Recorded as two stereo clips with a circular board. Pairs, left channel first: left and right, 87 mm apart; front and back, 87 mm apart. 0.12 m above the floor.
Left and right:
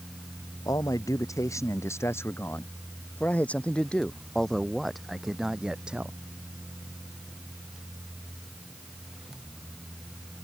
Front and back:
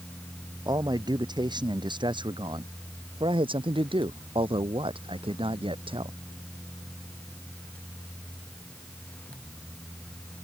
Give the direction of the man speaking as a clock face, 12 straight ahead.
7 o'clock.